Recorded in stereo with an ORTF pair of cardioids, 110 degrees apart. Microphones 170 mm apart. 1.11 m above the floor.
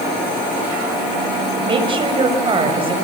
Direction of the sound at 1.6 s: 30° right.